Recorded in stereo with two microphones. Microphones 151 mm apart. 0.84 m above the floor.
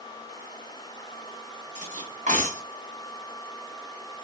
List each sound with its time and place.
1.8 s cutlery clinking: 55° right (ahead or behind), 0.8 m